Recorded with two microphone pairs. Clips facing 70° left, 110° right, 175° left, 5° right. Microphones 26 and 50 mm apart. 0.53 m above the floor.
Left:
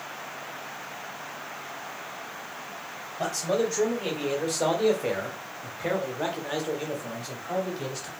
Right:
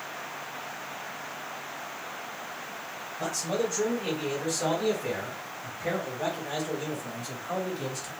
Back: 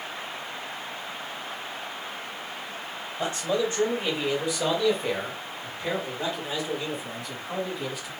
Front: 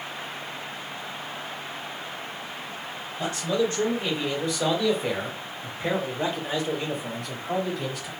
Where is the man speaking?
110° left, 1.9 m; by 8.1 s straight ahead, 1.7 m.